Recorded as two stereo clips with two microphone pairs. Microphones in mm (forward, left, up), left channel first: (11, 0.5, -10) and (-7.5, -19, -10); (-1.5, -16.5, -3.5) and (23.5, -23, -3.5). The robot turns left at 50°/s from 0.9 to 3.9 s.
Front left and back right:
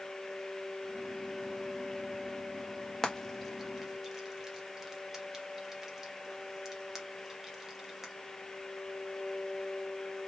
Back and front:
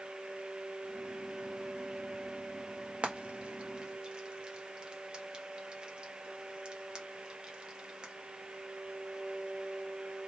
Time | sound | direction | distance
3.0 | frying | 20° right | 1.4 m